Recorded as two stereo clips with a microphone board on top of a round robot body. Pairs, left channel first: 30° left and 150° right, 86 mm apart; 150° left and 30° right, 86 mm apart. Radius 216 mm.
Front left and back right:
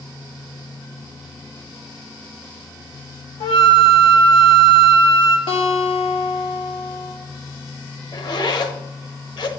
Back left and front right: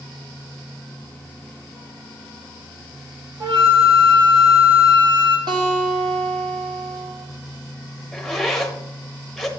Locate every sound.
3.4 s a flute: 10° left, 1.0 m
5.5 s a guitar: 10° left, 1.6 m
8.1 s a zipper: 60° left, 0.9 m